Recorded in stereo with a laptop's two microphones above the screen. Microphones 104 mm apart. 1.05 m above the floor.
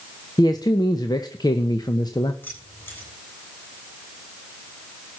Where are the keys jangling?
20° left (ahead or behind), 7.5 m.